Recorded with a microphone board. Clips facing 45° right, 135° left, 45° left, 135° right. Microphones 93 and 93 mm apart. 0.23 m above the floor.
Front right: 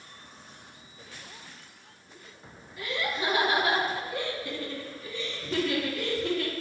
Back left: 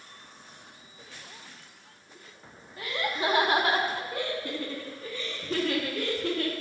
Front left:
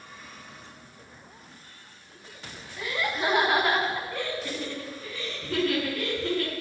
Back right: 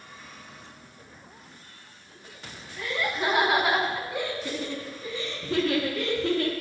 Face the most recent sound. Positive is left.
turn(degrees=170)